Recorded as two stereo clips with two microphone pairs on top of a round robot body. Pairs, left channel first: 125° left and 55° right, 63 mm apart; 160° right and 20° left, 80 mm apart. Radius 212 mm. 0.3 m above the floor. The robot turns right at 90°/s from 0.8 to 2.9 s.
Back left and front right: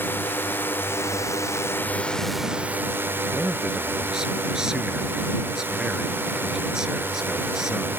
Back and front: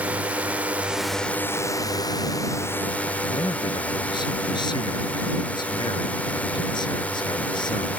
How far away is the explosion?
I don't hear an explosion.